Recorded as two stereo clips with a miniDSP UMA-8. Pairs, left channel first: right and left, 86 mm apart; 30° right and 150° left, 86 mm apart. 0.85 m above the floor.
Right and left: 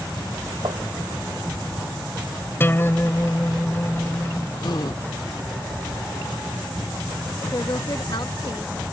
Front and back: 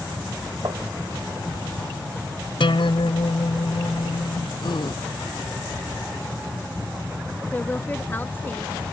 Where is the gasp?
55° right.